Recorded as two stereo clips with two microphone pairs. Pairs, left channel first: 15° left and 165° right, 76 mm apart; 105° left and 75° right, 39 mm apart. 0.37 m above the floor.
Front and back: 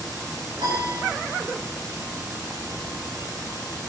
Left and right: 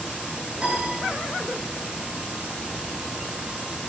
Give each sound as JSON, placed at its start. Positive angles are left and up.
{"t": 0.6, "sound": "a piano", "azimuth_deg": -140, "distance_m": 7.0}